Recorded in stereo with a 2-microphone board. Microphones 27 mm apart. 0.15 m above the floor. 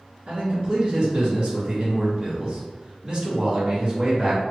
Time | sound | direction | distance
0.3 | a man speaking | 40° right (ahead or behind) | 1.8 m